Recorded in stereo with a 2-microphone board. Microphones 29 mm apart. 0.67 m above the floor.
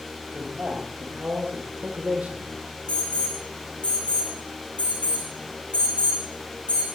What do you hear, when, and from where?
0.3 s a man speaking: 65° right (ahead or behind), 3 m; by 2.5 s 60° right (ahead or behind), 1.8 m
2.9 s an alarm: 50° left (ahead or behind), 8.5 m